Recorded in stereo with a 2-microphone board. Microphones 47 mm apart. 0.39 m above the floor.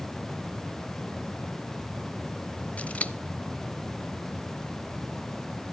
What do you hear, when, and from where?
2.8 s scissors: 30° left (ahead or behind), 0.7 m